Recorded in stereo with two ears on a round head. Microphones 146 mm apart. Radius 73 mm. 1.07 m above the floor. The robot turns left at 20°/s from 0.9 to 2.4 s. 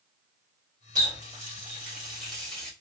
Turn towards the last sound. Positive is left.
turn(degrees=5)  # may be behind; listen again after turning